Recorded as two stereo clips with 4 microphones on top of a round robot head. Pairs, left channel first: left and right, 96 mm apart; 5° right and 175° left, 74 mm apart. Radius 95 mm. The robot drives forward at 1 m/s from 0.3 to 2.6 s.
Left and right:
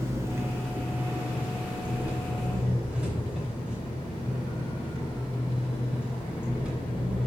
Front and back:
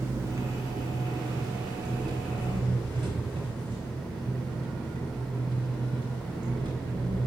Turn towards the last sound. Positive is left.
turn(degrees=-170)